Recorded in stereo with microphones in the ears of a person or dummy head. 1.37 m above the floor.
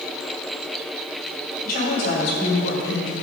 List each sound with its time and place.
1.6 s a woman speaking: 45° left (ahead or behind), 4 m; by 3.1 s 75° left (ahead or behind), 3 m